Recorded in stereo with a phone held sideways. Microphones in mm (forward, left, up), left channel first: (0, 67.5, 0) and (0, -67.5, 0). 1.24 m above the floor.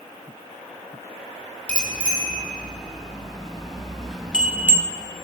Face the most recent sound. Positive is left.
turn(degrees=-20)  # may be behind; listen again after turning